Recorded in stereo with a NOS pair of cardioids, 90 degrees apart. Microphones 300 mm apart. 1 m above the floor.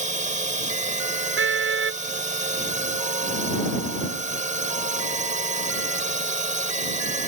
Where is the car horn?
45° right.